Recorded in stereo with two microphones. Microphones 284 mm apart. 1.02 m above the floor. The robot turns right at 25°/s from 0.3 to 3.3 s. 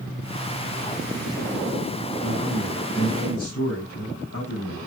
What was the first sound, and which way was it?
A man speaking, 30° left (ahead or behind).